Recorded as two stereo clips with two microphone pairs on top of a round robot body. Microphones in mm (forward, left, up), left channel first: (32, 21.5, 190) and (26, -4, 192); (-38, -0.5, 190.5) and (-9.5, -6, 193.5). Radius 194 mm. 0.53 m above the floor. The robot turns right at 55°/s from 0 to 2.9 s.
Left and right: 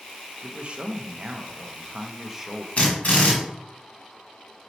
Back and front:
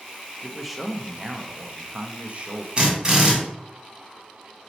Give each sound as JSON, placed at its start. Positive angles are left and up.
{"t": 0.4, "sound": "a man speaking", "azimuth_deg": -130, "distance_m": 0.7}
{"t": 2.8, "sound": "a drill", "azimuth_deg": 45, "distance_m": 1.6}